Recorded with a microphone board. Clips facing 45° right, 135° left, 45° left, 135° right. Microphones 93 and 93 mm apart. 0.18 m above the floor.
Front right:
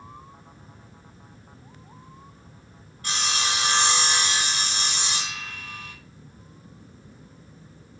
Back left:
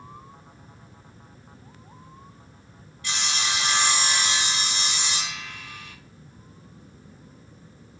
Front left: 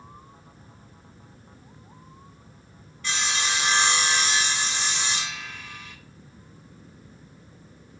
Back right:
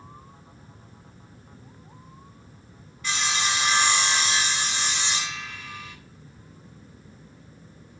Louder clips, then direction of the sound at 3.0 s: Front right 2 dB, back right 1 dB; 45° right.